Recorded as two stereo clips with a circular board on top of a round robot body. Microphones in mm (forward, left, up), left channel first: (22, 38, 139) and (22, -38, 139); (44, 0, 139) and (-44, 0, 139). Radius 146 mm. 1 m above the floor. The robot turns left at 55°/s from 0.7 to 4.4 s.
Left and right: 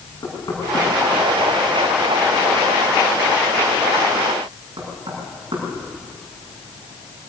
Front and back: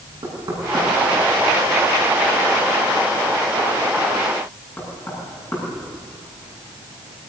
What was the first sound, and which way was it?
Knocking, 140° left.